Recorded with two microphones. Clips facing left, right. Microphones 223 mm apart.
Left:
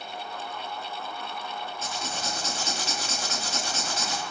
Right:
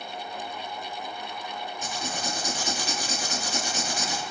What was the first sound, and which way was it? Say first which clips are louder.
Writing: right 3 dB; 15° right (ahead or behind).